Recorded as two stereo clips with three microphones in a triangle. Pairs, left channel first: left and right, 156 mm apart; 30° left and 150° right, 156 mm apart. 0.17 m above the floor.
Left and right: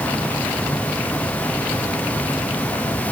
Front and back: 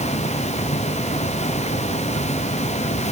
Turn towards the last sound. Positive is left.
No sound to turn to.